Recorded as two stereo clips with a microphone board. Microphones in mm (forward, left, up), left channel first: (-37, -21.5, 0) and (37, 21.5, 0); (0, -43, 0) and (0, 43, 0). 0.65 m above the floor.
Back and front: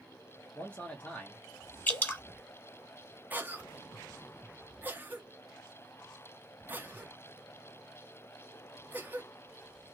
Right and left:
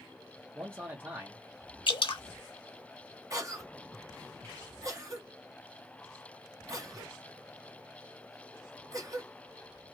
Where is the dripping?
80° right, 0.9 m.